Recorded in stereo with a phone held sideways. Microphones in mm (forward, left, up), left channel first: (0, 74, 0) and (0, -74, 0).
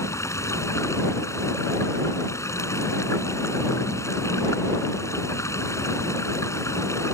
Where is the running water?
20° left (ahead or behind).